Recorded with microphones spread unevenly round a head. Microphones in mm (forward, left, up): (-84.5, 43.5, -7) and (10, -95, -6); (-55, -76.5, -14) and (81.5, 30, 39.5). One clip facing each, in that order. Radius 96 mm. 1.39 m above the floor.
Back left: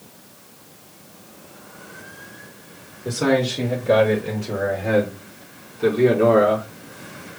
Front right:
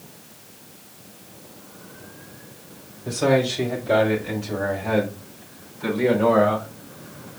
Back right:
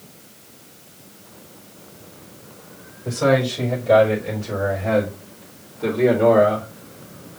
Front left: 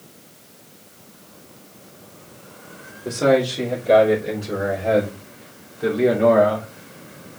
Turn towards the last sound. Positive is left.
turn(degrees=130)